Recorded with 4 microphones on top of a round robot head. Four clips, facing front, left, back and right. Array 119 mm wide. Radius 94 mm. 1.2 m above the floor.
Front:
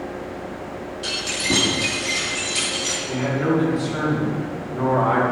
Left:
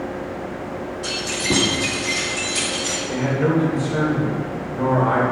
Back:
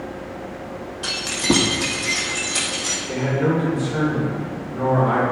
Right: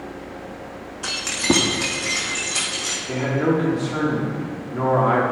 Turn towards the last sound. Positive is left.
turn(degrees=-75)